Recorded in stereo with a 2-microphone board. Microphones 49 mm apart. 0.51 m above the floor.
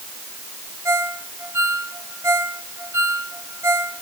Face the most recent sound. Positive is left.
turn(degrees=-70)  # may be behind; listen again after turning